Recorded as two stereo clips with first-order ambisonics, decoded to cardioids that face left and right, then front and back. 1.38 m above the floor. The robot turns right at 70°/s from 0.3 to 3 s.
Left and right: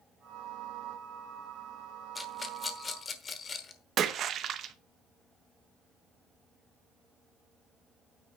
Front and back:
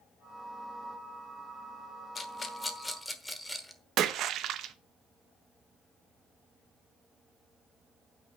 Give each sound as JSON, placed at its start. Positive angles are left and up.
{"t": 2.1, "sound": "a rattle", "azimuth_deg": 20, "distance_m": 1.1}
{"t": 4.0, "sound": "a splash", "azimuth_deg": -140, "distance_m": 0.8}